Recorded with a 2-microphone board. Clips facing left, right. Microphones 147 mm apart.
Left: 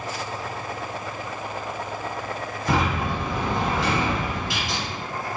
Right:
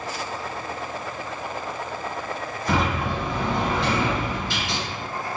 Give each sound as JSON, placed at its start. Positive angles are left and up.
{"t": 2.7, "sound": "a sliding door", "side_deg": 5, "distance_m": 1.9}